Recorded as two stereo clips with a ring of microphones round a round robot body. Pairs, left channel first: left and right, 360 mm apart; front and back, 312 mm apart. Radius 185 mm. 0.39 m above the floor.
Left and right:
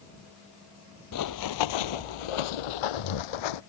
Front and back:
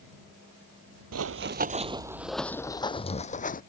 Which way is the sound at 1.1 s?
140° left.